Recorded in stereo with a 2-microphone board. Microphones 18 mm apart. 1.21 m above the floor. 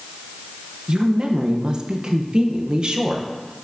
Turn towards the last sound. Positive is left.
turn(degrees=-50)  # may be behind; listen again after turning